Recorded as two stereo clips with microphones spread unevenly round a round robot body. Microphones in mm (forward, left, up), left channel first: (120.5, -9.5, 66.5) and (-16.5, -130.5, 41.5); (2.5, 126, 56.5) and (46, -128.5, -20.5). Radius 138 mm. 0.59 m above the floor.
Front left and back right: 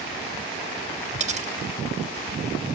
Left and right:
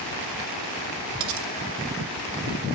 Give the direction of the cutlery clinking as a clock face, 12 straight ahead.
3 o'clock.